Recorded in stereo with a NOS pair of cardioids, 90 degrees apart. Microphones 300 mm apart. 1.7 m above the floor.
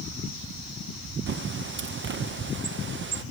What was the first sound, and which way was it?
A bird, 40° right.